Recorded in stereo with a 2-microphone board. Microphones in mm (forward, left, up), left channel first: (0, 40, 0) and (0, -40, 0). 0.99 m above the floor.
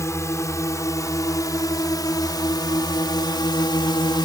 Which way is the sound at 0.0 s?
35° left (ahead or behind).